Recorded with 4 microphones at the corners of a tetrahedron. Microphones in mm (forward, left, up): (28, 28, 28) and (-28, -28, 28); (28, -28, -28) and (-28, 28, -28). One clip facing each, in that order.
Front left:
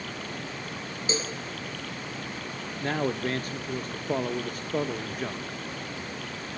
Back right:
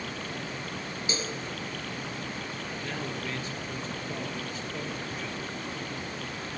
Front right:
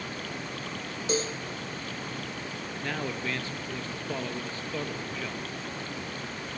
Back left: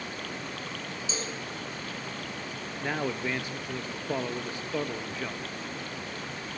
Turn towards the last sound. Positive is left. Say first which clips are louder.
# front left 10 dB, back left 3 dB
turn(degrees=70)